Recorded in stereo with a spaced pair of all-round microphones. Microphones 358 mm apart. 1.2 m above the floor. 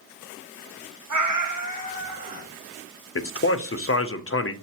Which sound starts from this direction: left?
A man speaking, at 3.1 s.